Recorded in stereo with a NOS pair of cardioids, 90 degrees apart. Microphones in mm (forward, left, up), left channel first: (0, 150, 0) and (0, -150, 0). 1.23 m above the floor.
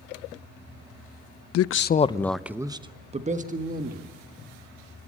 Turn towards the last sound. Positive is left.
turn(degrees=-30)